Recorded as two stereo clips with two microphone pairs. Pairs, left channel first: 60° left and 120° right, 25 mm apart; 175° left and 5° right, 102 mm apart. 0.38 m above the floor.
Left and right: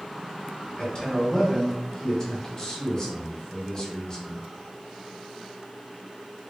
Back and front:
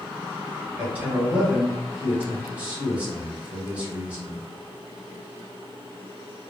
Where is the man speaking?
55° left, 1.0 m.